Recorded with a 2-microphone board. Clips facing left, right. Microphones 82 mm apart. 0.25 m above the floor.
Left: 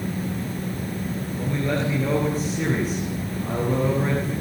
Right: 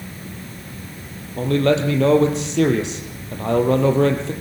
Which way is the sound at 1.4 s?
80° right.